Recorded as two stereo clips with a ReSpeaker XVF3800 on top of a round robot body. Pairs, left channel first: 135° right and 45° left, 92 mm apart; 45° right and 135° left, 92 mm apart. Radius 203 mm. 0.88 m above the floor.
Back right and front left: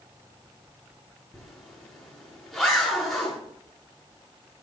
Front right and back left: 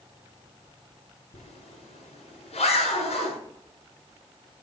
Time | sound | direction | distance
1.3 | a zipper | 45° right | 7.5 m